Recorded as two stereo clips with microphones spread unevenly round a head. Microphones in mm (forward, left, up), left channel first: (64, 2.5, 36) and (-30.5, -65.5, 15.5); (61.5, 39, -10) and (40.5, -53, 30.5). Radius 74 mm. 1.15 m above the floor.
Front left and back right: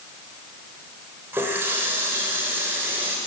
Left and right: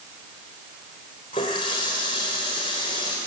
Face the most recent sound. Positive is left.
turn(degrees=135)